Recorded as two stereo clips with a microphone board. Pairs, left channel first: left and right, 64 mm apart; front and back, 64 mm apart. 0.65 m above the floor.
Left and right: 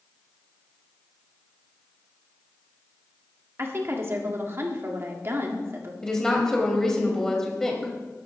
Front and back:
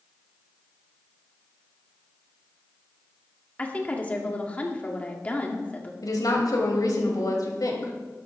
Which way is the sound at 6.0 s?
10° left.